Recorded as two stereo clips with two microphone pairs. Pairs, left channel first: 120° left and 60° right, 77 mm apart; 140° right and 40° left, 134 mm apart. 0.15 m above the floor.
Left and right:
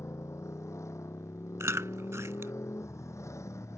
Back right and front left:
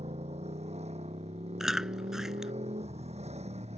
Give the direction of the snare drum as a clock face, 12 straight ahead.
No snare drum in this recording.